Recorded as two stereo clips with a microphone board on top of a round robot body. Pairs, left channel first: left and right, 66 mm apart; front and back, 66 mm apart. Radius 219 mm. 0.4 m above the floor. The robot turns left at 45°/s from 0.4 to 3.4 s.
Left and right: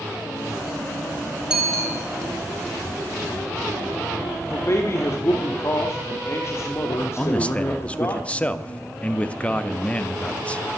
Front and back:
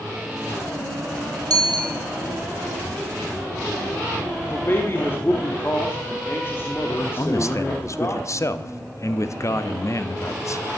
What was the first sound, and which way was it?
A bicycle bell, 165° right.